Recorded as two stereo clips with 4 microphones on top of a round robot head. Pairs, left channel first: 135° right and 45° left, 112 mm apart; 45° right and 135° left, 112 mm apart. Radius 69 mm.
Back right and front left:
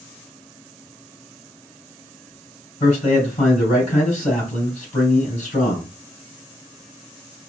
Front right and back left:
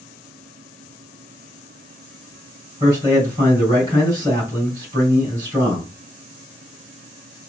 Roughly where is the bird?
No bird in this recording.